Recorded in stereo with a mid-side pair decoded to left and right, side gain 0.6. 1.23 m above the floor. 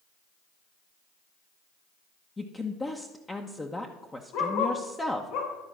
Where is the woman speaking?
15° left, 0.9 m.